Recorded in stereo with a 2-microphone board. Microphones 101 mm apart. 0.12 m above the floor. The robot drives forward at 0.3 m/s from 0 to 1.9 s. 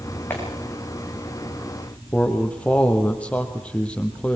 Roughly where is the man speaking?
Centre.